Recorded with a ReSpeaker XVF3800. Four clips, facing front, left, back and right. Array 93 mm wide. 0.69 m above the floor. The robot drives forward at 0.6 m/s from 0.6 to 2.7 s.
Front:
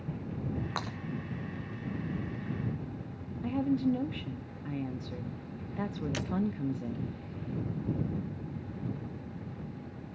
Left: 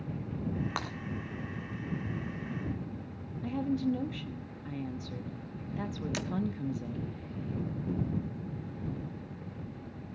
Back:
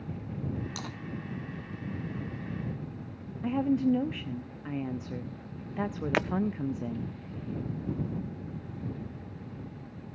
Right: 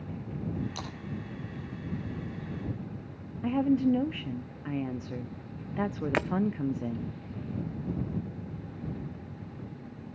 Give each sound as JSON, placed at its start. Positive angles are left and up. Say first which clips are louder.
{"t": 0.8, "sound": "breaking glass", "louder": "left 4 dB, front 4 dB", "azimuth_deg": 55, "distance_m": 2.5}
{"t": 3.4, "sound": "a woman speaking", "louder": "right 6 dB, back 3 dB", "azimuth_deg": -120, "distance_m": 0.6}
{"t": 6.1, "sound": "breaking glass", "louder": "right 11 dB, back 9 dB", "azimuth_deg": -140, "distance_m": 0.5}